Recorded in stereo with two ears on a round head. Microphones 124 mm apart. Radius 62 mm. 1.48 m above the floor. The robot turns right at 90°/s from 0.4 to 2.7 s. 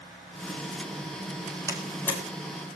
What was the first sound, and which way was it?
A door slam, 20° right (ahead or behind).